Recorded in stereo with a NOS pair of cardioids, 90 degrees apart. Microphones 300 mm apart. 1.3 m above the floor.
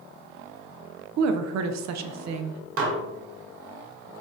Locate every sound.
1.2 s a woman speaking: 65° right, 0.6 m
2.8 s dishes clattering: 45° right, 1.2 m